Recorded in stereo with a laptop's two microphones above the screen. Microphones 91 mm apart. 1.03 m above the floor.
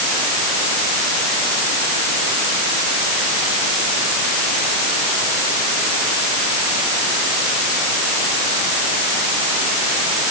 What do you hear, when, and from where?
Only background noise.